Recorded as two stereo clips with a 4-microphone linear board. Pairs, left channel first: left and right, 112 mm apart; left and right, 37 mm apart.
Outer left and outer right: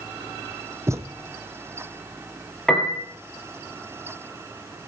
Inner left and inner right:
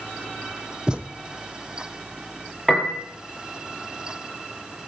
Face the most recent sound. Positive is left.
turn(degrees=5)  # may be behind; listen again after turning